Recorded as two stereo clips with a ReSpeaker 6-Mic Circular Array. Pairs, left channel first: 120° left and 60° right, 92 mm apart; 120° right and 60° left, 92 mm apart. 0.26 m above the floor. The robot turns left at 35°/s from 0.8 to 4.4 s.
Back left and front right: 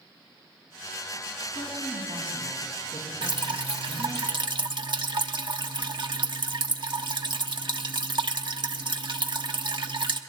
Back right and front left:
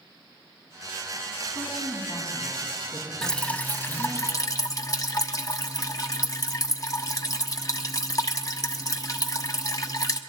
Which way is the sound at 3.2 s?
40° right.